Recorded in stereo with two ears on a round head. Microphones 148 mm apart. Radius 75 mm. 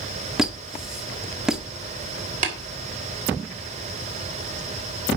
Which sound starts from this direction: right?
Tapping, at 2.4 s.